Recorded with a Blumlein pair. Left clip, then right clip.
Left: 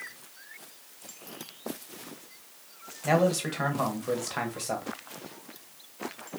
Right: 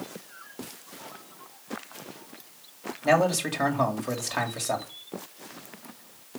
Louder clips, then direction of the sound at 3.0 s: Right 3 dB; 10° right.